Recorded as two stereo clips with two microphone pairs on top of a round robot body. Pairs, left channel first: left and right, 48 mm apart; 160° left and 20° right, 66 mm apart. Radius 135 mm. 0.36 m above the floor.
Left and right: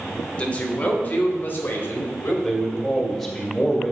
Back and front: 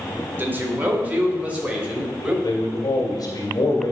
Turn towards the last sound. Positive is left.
turn(degrees=170)